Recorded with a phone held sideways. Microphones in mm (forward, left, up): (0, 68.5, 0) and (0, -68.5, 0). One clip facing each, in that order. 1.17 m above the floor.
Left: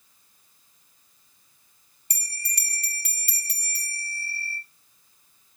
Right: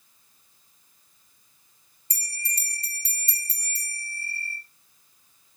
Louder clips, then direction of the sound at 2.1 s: Right 1 dB; 65° left (ahead or behind).